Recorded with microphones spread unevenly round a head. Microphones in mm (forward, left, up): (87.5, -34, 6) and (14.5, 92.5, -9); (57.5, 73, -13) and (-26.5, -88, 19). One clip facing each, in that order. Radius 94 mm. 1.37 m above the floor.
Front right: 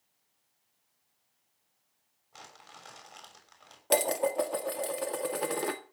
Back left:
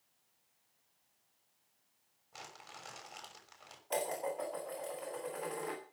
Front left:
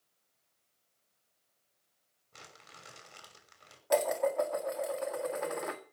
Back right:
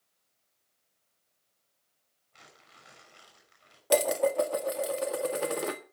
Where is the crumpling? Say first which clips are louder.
Even, front left 3 dB; 35° left, 6.5 m.